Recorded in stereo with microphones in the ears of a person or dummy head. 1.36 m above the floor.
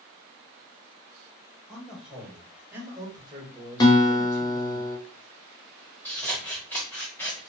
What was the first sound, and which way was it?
A man speaking, centre (ahead or behind).